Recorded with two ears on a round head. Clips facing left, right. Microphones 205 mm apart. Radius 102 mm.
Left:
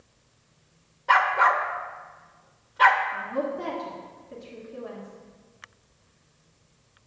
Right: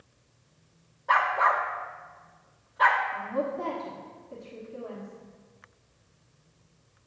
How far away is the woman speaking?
About 1.3 m.